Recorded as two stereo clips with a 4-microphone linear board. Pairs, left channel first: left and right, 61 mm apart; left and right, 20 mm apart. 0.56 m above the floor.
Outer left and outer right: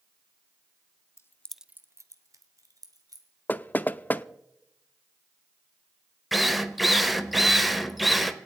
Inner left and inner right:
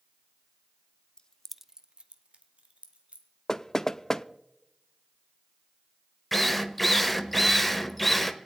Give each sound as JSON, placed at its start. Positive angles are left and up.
{"t": 1.2, "sound": "keys jangling", "side_deg": 45, "distance_m": 0.7}
{"t": 3.5, "sound": "knocking", "side_deg": 30, "distance_m": 0.5}
{"t": 6.3, "sound": "a drill", "side_deg": 0, "distance_m": 1.1}